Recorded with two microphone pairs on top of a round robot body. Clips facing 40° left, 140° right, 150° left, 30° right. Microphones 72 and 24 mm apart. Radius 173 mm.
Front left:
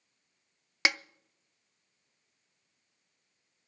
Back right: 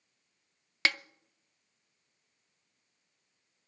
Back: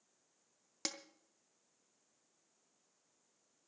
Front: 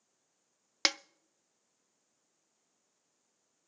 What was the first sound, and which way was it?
A snare drum, 35° right.